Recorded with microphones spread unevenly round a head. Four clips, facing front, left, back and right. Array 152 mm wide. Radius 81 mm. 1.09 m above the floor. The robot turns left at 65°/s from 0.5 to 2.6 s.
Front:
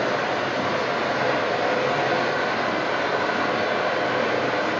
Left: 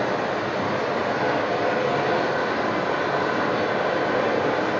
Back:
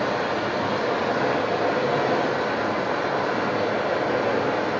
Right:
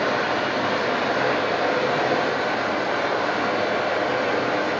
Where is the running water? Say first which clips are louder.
Right 1 dB, front 1 dB; 110° right, 0.8 m; by 4.8 s 110° left, 0.8 m.